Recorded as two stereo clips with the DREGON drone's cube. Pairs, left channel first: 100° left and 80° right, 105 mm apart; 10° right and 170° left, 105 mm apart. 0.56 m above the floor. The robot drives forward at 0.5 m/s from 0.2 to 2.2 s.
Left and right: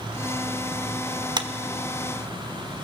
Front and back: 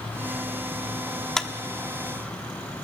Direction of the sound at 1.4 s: 95° right.